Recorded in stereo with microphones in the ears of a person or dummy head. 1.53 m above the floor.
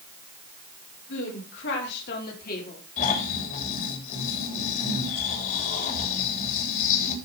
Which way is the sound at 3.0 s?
45° left (ahead or behind).